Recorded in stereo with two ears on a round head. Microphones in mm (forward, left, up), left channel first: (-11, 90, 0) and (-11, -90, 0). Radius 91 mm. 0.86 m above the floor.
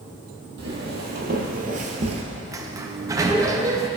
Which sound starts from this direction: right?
Footsteps, at 0.6 s.